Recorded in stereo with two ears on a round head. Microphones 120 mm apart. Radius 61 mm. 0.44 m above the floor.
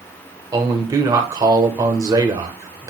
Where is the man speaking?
25° right (ahead or behind), 1.7 m.